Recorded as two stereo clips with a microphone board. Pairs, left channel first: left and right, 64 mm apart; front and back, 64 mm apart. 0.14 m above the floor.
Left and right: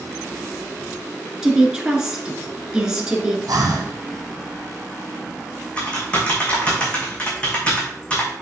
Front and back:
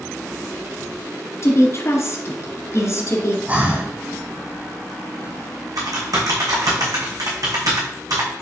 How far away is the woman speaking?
About 1.8 m.